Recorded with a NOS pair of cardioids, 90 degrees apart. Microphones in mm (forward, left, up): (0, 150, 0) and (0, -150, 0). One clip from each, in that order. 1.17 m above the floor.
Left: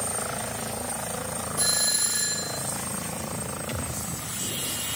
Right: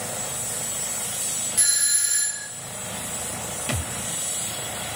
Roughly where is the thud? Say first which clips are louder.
Right 6 dB; ahead right.